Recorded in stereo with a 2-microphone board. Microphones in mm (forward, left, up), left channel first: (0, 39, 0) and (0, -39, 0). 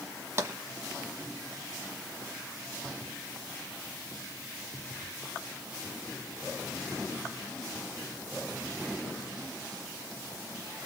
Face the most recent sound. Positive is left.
turn(degrees=-35)  # may be behind; listen again after turning